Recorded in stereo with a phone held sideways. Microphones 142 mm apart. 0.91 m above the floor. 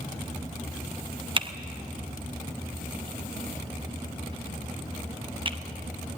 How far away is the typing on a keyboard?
About 0.9 m.